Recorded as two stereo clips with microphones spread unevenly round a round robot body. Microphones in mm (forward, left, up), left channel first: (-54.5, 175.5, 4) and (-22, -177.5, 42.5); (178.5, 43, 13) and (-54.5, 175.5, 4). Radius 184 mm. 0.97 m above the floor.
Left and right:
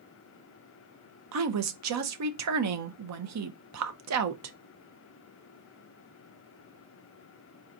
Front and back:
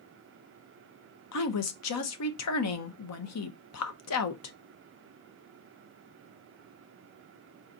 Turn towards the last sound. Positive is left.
turn(degrees=-40)